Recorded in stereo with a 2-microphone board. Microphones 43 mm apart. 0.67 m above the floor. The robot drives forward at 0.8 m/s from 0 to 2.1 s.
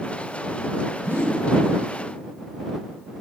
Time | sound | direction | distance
1.1 | a whoosh | 90° right | 1.3 m